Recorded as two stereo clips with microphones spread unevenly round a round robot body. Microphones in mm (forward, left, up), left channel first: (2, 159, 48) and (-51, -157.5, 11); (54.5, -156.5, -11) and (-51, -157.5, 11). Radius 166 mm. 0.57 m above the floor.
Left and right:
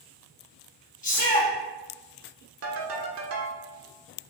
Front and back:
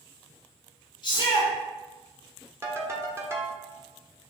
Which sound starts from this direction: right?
A ringtone, at 2.6 s.